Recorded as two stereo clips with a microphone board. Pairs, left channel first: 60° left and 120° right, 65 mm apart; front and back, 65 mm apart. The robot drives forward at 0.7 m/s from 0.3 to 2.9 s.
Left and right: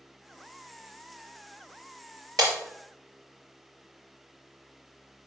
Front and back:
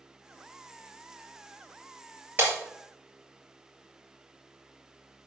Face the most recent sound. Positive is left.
turn(degrees=-130)